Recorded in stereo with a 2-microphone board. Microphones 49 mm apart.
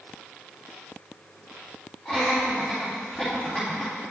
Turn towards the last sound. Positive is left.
turn(degrees=25)  # may be behind; listen again after turning